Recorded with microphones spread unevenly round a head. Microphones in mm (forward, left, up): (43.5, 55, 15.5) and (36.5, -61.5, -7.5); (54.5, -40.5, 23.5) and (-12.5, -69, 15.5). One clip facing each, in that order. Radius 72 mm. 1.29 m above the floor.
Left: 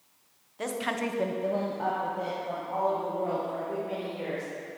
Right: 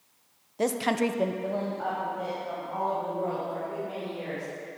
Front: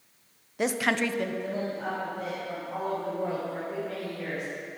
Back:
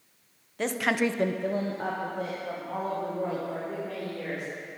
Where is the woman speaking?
55° right, 1.0 m; by 4.4 s 150° left, 5 m.